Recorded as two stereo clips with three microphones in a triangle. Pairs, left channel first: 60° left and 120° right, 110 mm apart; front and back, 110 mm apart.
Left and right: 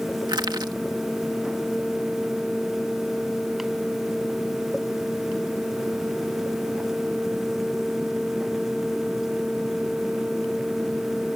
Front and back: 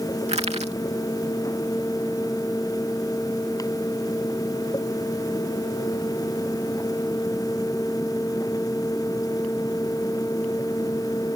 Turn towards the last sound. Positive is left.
turn(degrees=-170)